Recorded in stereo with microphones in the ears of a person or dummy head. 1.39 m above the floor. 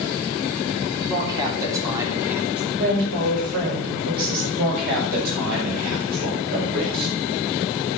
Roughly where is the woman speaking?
Right.